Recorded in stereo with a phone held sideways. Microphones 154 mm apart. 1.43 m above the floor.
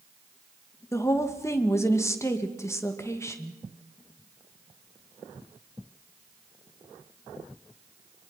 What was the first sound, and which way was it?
A woman speaking, 20° left (ahead or behind).